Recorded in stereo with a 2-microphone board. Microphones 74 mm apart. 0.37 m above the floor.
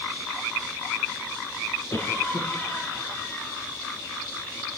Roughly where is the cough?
Left.